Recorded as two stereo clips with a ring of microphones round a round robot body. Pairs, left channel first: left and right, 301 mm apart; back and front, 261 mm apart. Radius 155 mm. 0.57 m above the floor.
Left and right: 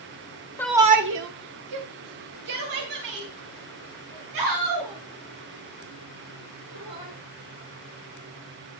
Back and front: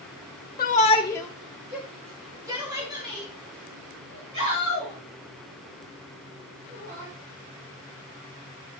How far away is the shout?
About 0.7 m.